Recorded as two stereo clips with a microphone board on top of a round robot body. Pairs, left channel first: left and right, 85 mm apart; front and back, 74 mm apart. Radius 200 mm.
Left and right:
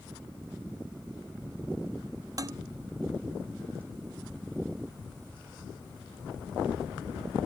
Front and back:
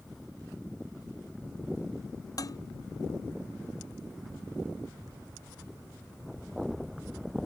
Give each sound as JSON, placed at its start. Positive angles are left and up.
{"t": 2.4, "sound": "dishes clattering", "azimuth_deg": -40}